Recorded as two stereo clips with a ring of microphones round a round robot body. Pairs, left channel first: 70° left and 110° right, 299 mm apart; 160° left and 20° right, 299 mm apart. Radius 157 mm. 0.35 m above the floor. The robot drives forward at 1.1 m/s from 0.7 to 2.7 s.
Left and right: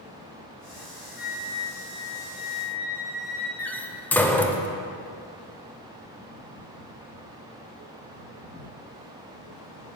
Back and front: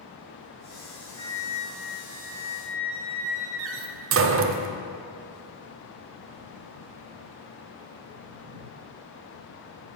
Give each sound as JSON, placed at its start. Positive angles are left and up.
{"t": 1.2, "sound": "a flute", "azimuth_deg": 80, "distance_m": 2.0}
{"t": 3.6, "sound": "a door slam", "azimuth_deg": -15, "distance_m": 0.6}